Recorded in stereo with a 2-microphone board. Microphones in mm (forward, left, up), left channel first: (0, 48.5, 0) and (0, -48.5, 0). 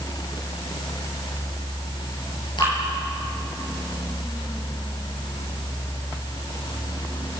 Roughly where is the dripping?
Left.